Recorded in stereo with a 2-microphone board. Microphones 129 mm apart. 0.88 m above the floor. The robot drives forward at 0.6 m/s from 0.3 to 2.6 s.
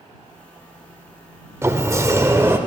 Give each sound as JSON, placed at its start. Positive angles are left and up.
{"t": 1.6, "sound": "a sliding door", "side_deg": -20, "distance_m": 0.6}